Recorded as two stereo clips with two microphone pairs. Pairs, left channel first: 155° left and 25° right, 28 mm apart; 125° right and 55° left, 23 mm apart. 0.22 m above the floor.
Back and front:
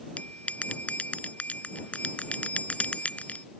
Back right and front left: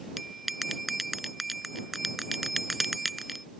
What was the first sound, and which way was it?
A bell, 140° left.